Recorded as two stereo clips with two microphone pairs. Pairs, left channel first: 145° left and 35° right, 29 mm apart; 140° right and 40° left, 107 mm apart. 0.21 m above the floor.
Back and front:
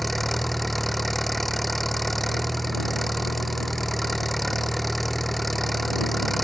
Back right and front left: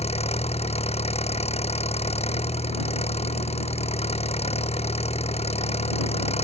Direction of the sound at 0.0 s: 125° right.